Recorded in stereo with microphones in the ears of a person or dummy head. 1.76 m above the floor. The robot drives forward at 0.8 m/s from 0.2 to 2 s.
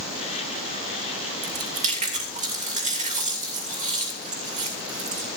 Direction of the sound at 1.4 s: 40° right (ahead or behind).